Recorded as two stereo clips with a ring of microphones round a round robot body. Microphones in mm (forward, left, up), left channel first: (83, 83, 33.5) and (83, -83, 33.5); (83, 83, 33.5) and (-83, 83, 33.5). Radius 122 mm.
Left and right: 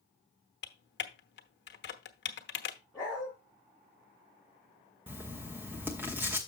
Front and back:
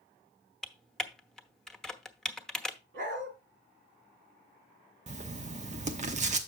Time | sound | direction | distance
0.6 | typing on a keyboard | 85° left | 1.1 m
2.9 | a dog barking | 175° right | 2.5 m
5.1 | writing | 165° right | 0.9 m